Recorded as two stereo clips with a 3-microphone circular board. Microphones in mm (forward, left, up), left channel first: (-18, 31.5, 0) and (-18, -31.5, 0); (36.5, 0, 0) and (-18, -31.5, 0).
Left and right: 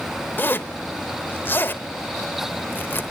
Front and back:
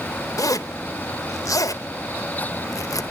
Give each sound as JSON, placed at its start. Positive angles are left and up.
{"t": 0.4, "sound": "a zipper", "azimuth_deg": 35, "distance_m": 0.7}